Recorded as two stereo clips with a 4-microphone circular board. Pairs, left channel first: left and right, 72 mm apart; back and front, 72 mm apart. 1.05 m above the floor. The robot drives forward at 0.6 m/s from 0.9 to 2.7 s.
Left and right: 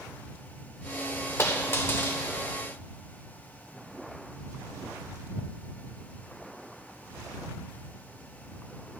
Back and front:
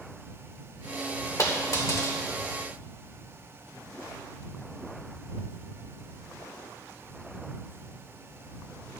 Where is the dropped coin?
140° left, 1.4 m; by 2.2 s 150° left, 1.8 m.